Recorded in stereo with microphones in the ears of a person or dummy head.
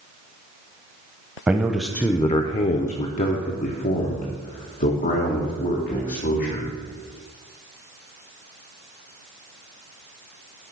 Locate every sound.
1.5 s a man speaking: 10° right (ahead or behind), 0.7 m; by 6.7 s 45° left (ahead or behind), 2.5 m